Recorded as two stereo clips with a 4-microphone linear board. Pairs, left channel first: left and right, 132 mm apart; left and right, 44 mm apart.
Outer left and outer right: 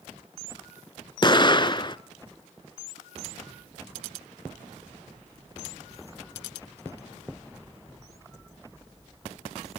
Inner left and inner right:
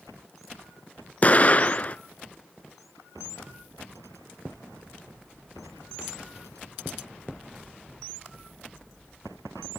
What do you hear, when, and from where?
1.2 s an explosion: 35° left (ahead or behind), 0.6 m